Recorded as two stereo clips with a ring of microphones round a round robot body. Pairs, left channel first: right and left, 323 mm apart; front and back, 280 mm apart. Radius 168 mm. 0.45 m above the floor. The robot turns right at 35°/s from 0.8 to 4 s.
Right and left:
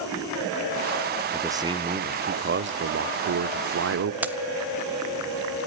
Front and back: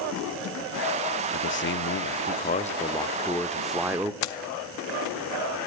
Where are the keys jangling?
5° left, 1.7 m.